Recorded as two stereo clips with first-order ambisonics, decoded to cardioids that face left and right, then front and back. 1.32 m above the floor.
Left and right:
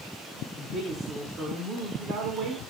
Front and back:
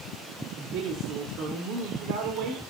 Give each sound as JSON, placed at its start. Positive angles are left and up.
{"t": 0.6, "sound": "a woman speaking", "azimuth_deg": -160, "distance_m": 3.5}